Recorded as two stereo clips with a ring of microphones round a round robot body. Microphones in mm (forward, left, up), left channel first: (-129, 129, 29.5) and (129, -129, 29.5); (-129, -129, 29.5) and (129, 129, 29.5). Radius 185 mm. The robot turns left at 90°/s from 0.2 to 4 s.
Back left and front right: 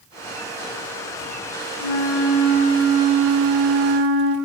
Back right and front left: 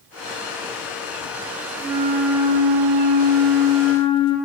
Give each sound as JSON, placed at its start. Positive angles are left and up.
{"t": 1.8, "sound": "a flute", "azimuth_deg": 140, "distance_m": 1.5}